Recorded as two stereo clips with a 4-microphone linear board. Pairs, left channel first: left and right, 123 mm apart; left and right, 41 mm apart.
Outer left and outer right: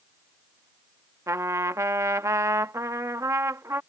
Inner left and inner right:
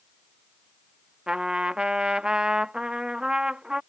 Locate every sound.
1.3 s a trumpet: 25° right (ahead or behind)